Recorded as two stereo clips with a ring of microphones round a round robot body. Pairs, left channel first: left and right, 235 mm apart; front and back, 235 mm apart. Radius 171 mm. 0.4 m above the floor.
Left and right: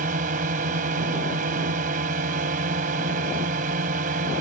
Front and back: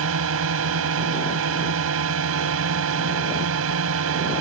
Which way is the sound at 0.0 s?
150° right.